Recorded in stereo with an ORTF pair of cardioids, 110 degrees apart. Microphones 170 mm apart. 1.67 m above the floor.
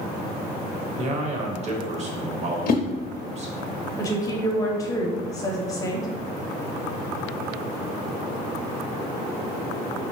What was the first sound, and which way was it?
A man speaking, 40° right.